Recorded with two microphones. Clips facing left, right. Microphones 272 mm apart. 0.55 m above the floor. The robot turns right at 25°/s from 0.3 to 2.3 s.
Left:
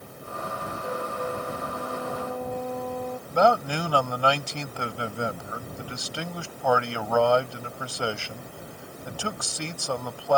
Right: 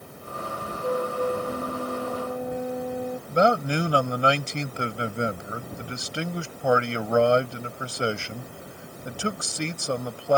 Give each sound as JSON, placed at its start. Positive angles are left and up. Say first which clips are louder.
{"t": 0.8, "sound": "a flute", "louder": "right 7 dB", "azimuth_deg": -55}
{"t": 3.3, "sound": "a man speaking", "louder": "right 1 dB", "side_deg": -25}